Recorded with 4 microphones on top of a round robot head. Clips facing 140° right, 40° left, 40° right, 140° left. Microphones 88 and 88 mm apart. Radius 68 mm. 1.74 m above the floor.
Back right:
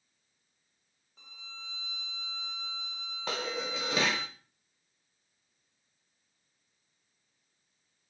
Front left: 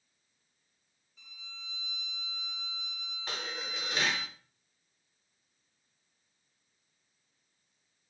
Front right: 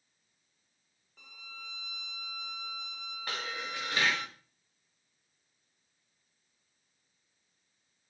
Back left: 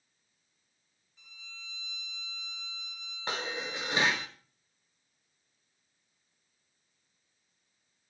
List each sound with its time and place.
1.2 s a violin: 80° right, 0.6 m
3.3 s dishes clattering: 150° right, 1.6 m